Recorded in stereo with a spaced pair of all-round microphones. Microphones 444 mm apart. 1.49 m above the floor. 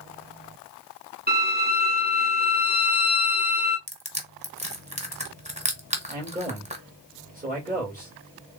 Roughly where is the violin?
Right.